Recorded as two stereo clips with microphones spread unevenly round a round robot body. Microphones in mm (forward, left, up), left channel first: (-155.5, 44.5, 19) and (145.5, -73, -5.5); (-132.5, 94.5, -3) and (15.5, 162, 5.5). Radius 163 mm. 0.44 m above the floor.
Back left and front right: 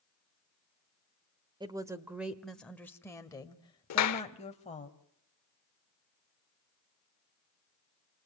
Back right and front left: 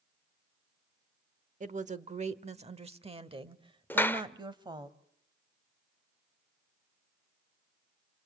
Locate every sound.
1.6 s a woman speaking: 50° left, 1.3 m; by 4.9 s 90° left, 2.5 m
3.9 s a clap: 135° left, 1.4 m